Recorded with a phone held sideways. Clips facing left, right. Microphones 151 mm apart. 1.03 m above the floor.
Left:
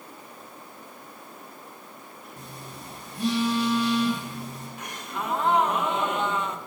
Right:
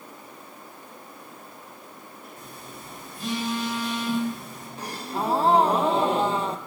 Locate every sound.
2.4 s a phone buzzing: 65° left (ahead or behind), 6.5 m
4.8 s a gasp: 35° right (ahead or behind), 0.6 m